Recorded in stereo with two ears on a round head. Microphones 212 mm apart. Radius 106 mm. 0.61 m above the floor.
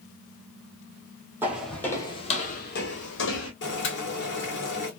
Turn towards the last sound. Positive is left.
turn(degrees=50)  # may be behind; listen again after turning